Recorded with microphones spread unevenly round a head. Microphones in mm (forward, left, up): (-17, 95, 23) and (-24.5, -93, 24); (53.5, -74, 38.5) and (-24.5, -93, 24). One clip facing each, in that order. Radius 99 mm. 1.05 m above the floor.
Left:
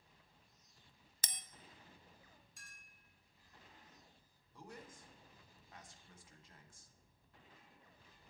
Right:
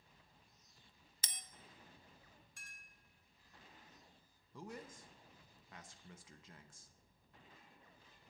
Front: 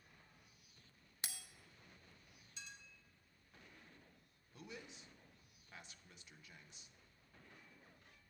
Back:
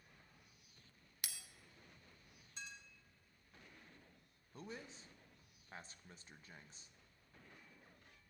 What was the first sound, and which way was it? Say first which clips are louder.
A bell: left 3 dB, front 2 dB; 80° left.